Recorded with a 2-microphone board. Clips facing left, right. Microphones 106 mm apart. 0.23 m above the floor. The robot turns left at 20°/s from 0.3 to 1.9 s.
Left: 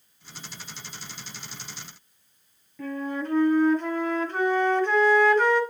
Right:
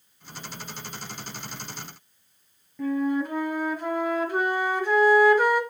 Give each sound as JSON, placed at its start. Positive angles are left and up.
{"t": 2.8, "sound": "a flute", "side_deg": -10, "distance_m": 1.3}